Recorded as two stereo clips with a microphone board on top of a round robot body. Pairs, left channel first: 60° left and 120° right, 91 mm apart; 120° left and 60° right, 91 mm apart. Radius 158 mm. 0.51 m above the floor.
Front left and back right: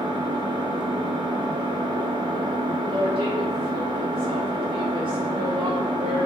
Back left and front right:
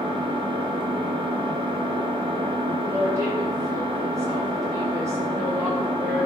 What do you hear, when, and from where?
0.0 s an engine running: 85° right, 0.8 m
2.8 s a woman speaking: 115° right, 3 m